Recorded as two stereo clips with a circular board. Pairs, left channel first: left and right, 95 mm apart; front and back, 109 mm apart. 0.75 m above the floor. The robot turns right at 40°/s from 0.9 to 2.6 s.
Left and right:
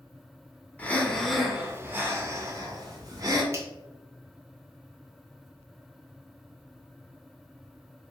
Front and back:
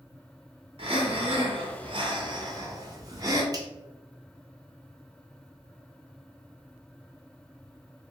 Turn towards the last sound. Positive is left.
turn(degrees=-140)